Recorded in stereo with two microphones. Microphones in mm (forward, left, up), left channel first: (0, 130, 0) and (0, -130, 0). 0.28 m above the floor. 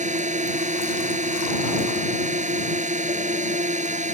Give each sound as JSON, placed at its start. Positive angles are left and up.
{"t": 0.0, "sound": "a drone", "side_deg": -30}